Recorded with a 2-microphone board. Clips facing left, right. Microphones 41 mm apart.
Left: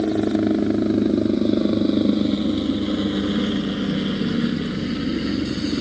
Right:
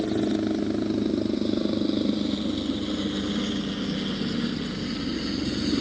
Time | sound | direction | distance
0.0 | a helicopter | 30° left (ahead or behind) | ?